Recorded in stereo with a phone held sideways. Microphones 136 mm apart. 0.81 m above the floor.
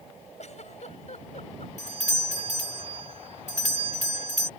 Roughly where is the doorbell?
Left.